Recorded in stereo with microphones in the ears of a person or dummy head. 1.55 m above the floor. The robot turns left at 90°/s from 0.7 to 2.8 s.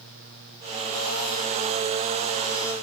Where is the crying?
I don't hear crying.